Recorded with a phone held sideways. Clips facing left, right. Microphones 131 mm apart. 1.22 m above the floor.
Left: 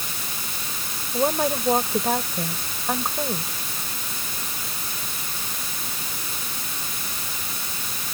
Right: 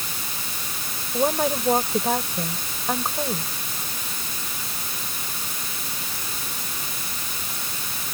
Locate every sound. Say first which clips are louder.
1.1 s a woman speaking: even; centre (ahead or behind)